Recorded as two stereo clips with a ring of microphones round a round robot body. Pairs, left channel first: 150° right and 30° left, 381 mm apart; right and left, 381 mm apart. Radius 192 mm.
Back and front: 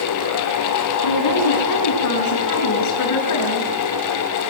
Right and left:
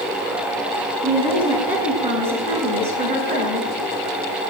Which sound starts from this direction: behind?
A woman speaking, at 1.0 s.